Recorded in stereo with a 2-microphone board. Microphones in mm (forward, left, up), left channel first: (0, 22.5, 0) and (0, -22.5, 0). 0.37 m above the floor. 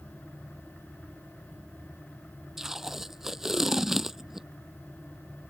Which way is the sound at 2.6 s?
5° right (ahead or behind).